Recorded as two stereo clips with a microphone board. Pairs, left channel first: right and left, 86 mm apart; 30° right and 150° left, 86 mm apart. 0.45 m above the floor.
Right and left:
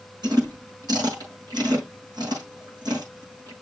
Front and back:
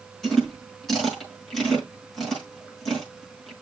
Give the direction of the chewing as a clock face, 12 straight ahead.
10 o'clock.